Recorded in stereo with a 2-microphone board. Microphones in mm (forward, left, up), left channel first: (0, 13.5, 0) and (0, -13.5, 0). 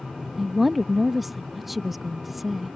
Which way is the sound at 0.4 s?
Centre (ahead or behind).